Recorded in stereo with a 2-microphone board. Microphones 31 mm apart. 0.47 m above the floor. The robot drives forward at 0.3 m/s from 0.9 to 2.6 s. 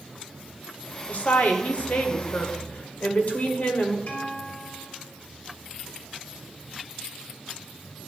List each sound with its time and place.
1.1 s a woman speaking: 55° left (ahead or behind), 1.5 m; by 4.0 s 50° left (ahead or behind), 1.5 m
4.1 s a guitar: 60° left (ahead or behind), 2.5 m